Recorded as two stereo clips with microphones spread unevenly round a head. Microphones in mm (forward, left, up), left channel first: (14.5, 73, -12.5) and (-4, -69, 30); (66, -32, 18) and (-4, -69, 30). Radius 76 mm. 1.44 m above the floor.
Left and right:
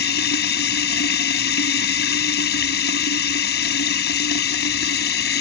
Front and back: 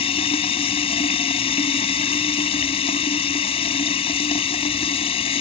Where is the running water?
60° left.